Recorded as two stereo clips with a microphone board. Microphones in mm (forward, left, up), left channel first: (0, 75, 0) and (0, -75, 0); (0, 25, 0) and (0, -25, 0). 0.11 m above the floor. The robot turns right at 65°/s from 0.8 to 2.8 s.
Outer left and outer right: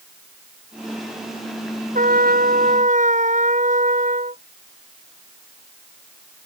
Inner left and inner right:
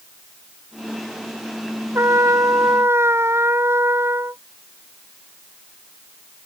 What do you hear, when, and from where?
1.9 s a trumpet: 115° right; by 4.4 s 60° right